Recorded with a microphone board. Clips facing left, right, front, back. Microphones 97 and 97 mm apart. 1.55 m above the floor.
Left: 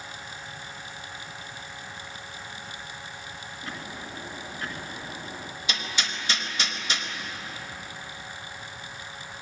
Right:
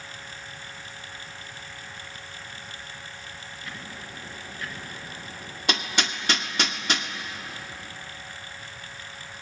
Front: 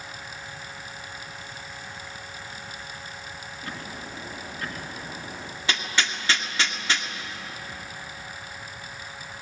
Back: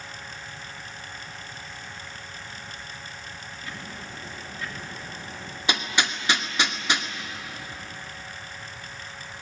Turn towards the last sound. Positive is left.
turn(degrees=-110)